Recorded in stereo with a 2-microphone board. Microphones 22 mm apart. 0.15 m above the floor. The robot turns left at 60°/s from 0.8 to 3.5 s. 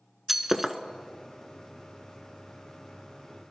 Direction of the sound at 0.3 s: 10° right (ahead or behind).